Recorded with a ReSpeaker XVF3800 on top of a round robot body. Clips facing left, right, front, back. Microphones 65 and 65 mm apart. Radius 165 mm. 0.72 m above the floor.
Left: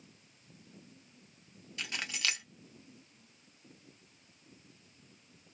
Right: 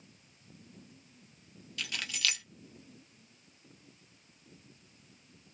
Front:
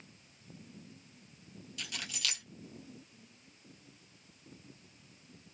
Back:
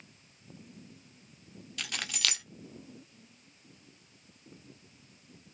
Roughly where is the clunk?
I don't hear a clunk.